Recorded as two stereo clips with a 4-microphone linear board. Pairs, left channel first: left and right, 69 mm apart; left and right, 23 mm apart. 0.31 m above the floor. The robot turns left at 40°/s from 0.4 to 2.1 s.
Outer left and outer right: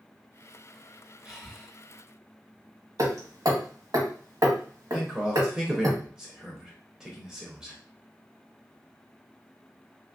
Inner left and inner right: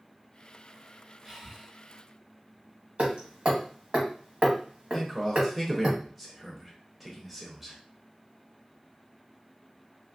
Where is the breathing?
15° right (ahead or behind), 1.1 m; by 1.7 s 5° left (ahead or behind), 1.1 m.